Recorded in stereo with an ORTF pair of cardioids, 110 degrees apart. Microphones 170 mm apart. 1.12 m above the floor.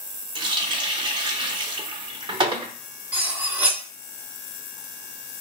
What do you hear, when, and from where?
0.3 s a running tap: 25° right, 0.7 m
3.1 s cutlery clinking: 10° right, 0.7 m